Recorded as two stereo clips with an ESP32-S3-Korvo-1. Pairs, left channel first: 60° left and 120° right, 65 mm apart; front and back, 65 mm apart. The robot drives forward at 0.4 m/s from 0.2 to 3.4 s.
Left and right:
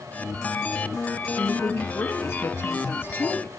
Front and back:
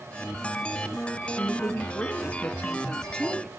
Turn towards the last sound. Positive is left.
turn(degrees=80)